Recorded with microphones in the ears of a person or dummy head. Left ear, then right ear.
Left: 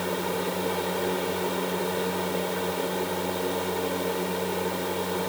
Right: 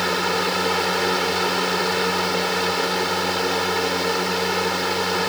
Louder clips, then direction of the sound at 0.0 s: Right 8 dB; 65° right (ahead or behind).